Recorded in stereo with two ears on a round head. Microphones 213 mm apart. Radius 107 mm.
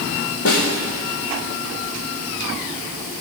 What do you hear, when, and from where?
0.5 s a snare drum: 65° left (ahead or behind), 2.5 m